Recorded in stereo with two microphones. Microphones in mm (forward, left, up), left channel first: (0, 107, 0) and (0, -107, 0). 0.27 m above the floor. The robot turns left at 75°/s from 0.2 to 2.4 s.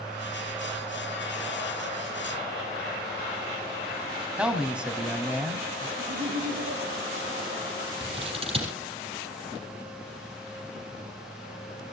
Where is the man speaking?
5° right (ahead or behind), 2 m.